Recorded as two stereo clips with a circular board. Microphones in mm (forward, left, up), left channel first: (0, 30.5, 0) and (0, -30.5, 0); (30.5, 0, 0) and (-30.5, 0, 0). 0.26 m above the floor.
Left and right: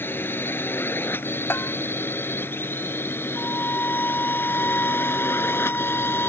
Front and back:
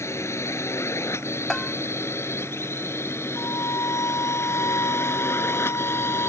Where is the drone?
40° left; by 6.3 s 45° left.